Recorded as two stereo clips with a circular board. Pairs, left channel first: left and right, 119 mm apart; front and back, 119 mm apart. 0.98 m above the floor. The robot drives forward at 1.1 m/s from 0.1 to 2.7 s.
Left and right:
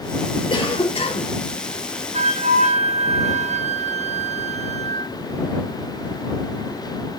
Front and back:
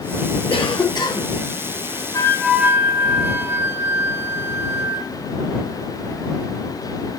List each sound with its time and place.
0.5 s a cough: 40° left, 2.5 m; by 1.3 s 65° left, 1.7 m
2.1 s a flute: 60° right, 0.8 m; by 5.1 s 110° right, 0.7 m